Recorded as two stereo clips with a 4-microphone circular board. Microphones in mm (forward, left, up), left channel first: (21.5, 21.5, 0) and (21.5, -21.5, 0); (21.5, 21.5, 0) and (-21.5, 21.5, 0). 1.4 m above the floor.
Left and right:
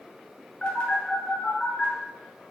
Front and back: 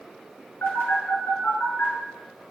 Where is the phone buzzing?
25° left, 2.5 m.